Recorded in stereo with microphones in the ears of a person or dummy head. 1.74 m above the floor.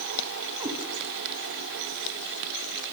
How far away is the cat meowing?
About 3.5 m.